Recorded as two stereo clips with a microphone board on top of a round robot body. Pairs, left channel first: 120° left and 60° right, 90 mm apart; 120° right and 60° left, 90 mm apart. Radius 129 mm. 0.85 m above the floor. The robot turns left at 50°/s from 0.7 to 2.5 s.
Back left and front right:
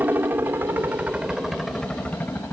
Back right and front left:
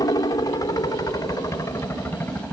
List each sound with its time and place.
0.0 s a helicopter: 120° right; by 2.5 s 175° left